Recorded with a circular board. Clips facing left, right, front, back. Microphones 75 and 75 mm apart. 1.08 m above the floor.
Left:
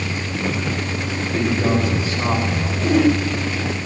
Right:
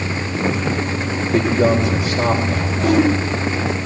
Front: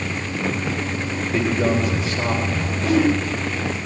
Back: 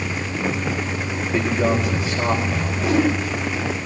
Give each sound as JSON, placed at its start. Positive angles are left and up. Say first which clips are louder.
{"t": 1.3, "sound": "a man speaking", "louder": "right 4 dB, even", "azimuth_deg": -95, "distance_m": 4.0}
{"t": 2.8, "sound": "a whoosh", "louder": "right 1 dB, front 1 dB", "azimuth_deg": -100, "distance_m": 3.0}